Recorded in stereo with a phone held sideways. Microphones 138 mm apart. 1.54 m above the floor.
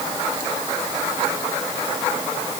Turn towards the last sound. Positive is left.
No sound to turn to.